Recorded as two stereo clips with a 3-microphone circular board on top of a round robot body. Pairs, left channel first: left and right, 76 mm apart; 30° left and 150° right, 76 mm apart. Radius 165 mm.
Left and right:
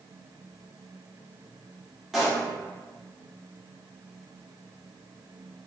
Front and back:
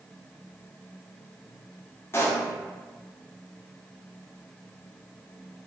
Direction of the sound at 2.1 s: Straight ahead.